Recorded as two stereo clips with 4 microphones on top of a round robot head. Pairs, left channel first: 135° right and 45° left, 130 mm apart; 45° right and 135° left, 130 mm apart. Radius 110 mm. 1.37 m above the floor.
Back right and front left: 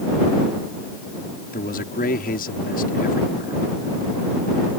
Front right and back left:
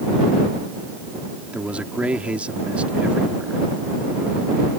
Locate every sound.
1.5 s a man speaking: 140° right